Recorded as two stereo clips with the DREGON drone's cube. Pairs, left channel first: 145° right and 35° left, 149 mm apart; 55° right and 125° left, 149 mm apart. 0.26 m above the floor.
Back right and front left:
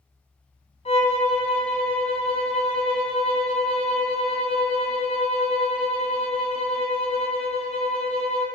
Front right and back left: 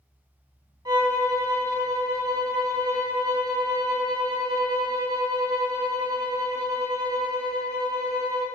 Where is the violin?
175° right, 2.5 m.